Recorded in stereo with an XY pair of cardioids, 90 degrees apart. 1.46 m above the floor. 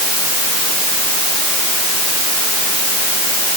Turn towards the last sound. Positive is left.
No sound to turn to.